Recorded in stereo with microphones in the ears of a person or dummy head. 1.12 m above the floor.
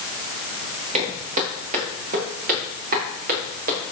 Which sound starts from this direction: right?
Footsteps, at 0.9 s.